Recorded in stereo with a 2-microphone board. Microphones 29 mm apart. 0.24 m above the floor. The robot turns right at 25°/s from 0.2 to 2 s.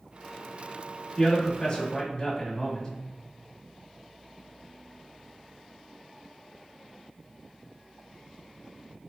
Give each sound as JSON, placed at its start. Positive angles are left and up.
{"t": 1.2, "sound": "a man speaking", "side_deg": 35, "distance_m": 1.1}